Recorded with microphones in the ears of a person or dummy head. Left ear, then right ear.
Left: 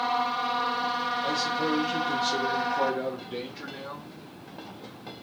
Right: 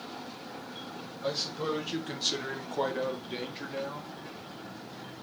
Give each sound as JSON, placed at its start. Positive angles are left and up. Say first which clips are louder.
{"t": 1.2, "sound": "a man speaking", "louder": "left 5 dB", "side_deg": -20, "distance_m": 1.2}